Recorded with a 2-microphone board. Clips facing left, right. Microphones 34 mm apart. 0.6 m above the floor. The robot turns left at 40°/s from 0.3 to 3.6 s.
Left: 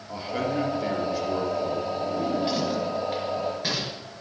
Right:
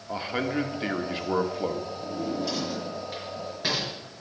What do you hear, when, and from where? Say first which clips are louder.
0.1 s a man speaking: left 1 dB; 35° right, 1.4 m; by 1.9 s 95° right, 1.4 m
2.0 s a drawer: left 4 dB; 60° left (ahead or behind), 4.5 m; by 3.9 s 5° right (ahead or behind), 4.5 m